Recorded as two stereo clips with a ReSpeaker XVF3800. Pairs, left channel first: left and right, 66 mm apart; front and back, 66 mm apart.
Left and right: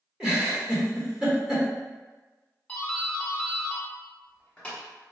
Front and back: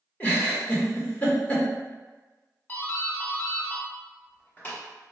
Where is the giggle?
25° right, 1.3 m.